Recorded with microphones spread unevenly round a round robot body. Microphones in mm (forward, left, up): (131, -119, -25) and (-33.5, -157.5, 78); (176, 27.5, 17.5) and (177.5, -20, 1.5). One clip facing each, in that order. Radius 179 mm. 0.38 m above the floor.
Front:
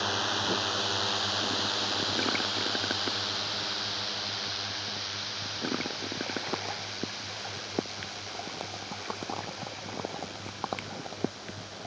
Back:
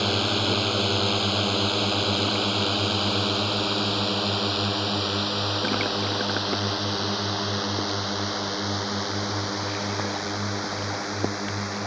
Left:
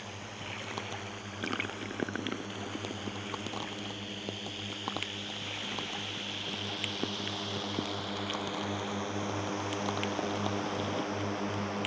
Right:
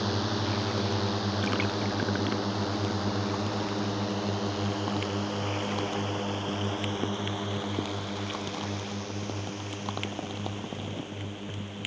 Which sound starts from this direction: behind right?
A drone, at 0.0 s.